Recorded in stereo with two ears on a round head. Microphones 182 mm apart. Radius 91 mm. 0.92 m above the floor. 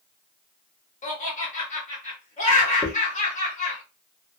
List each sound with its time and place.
1.0 s laughter: 35° left (ahead or behind), 1.3 m
2.8 s a dropped coin: 35° left (ahead or behind), 0.8 m